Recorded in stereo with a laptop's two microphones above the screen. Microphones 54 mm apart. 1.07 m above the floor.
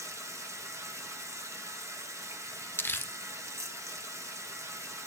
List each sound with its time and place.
0.0 s running water: 65° right (ahead or behind), 1.2 m
2.8 s crumpling: 40° left (ahead or behind), 0.5 m